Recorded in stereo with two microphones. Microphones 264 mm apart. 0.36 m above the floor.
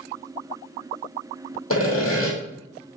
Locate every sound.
1.7 s sawing: 60° left (ahead or behind), 2 m